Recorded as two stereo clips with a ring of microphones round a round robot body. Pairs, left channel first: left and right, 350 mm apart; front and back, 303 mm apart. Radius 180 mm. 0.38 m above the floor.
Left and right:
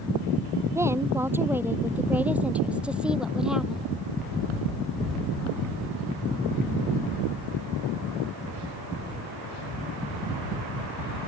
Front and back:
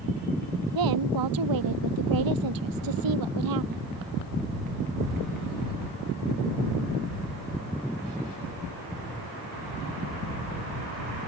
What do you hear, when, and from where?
0.8 s a woman speaking: 175° right; by 3.8 s straight behind